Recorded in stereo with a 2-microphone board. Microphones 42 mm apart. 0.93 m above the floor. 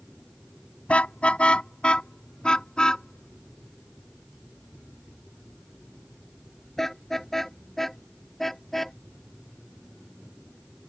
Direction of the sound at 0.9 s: 30° left (ahead or behind).